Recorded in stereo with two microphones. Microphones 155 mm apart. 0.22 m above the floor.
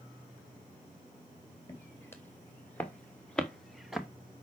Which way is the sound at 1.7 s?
15° left (ahead or behind).